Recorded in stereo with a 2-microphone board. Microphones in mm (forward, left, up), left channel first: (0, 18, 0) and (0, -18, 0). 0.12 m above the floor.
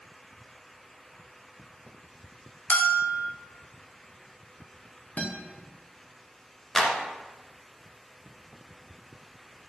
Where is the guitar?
45° left (ahead or behind), 1.9 m.